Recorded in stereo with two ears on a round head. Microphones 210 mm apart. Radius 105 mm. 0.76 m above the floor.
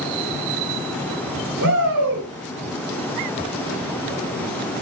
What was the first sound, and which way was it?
A shout, 75° right (ahead or behind).